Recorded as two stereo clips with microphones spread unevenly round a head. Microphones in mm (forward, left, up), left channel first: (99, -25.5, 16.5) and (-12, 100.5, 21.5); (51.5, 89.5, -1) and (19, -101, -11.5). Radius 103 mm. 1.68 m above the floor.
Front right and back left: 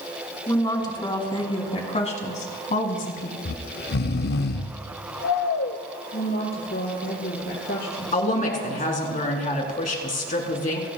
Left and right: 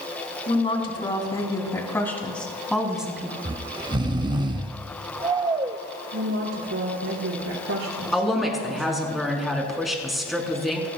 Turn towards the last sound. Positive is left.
turn(degrees=-10)